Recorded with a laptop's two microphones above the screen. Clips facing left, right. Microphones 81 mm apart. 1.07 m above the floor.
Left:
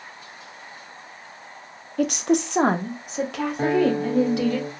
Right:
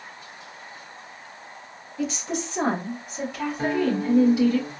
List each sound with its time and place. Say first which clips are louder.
2.0 s a woman speaking: left 8 dB; 60° left (ahead or behind), 0.6 m; by 4.6 s 80° left, 1.9 m
3.6 s a guitar: left 4 dB; 75° left (ahead or behind), 1.7 m